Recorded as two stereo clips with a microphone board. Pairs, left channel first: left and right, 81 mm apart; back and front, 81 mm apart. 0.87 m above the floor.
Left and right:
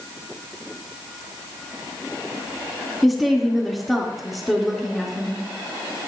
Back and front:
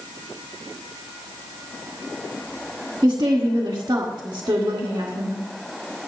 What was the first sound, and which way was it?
A woman speaking, straight ahead.